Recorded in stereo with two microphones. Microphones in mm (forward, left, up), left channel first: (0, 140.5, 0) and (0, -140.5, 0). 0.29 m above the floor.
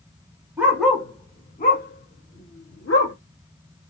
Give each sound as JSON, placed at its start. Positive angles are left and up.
{"t": 0.6, "sound": "a dog barking", "side_deg": -5, "distance_m": 1.1}